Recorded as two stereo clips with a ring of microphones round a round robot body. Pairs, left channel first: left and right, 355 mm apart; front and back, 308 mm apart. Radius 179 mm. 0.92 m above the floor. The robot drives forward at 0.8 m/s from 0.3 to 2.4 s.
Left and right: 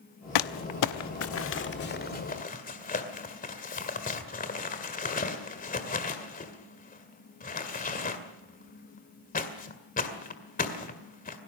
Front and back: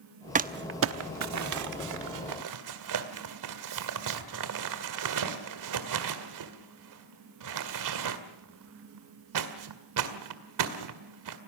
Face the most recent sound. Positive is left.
turn(degrees=160)